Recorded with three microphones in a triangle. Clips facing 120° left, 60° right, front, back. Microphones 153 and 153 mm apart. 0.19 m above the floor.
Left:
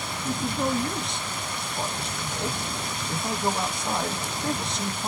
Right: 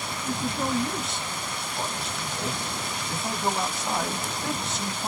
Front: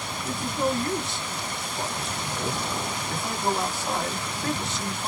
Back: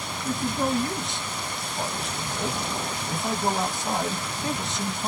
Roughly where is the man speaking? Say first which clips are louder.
Left 2 dB, back 1 dB; behind right.